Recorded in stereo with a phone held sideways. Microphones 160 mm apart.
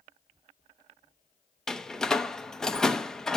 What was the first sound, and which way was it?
A door slam, 5° left (ahead or behind).